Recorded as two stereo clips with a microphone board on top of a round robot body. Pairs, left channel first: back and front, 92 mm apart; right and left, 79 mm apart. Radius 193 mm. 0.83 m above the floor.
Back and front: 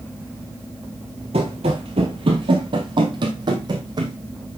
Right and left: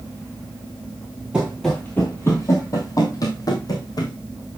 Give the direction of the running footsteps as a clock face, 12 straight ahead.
12 o'clock.